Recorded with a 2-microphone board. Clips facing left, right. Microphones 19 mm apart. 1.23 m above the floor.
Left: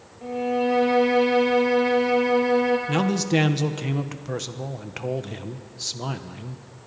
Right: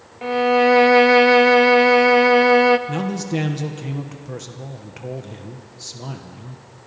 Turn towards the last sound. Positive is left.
turn(degrees=20)  # may be behind; listen again after turning